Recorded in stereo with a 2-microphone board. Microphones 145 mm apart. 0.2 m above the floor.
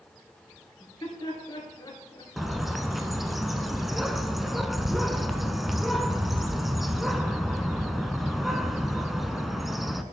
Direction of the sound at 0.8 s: 30° left (ahead or behind).